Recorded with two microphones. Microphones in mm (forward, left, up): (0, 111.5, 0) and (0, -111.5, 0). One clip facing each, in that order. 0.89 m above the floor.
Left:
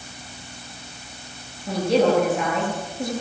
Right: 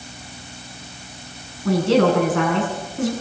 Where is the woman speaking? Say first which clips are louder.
Right 3 dB; 85° right, 8.5 m.